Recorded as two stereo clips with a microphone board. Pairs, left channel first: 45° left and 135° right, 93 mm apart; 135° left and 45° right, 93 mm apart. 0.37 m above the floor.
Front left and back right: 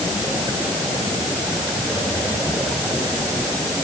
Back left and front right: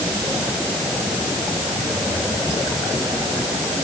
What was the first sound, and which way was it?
Only background noise.